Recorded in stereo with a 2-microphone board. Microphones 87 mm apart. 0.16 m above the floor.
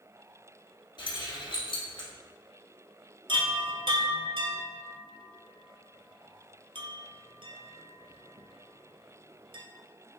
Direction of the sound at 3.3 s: 75° right (ahead or behind).